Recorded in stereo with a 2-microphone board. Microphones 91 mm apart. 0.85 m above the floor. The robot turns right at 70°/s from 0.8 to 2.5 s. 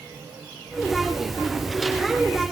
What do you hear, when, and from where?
Only background noise.